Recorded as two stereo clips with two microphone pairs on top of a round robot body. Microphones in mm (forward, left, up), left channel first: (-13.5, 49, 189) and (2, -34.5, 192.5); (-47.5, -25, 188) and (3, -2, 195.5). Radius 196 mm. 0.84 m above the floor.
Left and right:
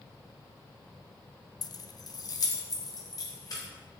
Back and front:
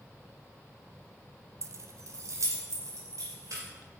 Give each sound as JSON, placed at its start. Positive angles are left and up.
{"t": 1.6, "sound": "keys jangling", "azimuth_deg": 60, "distance_m": 0.5}